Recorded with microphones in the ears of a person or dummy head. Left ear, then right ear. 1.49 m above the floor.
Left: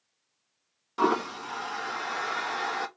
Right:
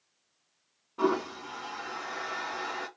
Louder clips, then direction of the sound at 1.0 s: Left 3 dB; 65° left (ahead or behind).